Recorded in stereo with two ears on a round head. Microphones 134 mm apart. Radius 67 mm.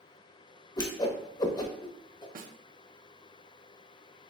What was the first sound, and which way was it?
A whoosh, 25° left (ahead or behind).